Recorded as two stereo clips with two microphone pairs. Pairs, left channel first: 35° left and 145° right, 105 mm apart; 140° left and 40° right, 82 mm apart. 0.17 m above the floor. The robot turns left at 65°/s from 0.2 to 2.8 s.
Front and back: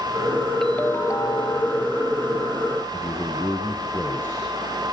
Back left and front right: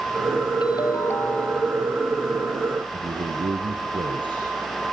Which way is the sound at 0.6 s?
120° left.